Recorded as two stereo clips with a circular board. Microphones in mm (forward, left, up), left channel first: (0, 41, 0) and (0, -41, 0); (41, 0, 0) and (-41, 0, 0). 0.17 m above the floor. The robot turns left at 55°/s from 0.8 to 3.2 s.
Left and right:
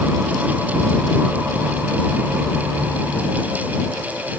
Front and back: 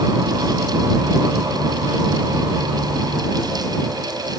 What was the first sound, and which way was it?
Only background noise.